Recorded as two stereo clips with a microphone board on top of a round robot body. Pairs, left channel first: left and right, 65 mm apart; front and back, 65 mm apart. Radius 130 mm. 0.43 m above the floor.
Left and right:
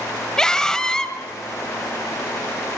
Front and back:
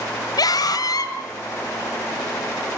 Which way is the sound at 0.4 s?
10° left.